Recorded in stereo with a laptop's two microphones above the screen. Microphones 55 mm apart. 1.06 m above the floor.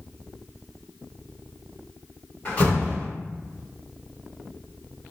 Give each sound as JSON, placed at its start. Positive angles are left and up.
{"t": 2.5, "sound": "a door slam", "side_deg": 30, "distance_m": 1.3}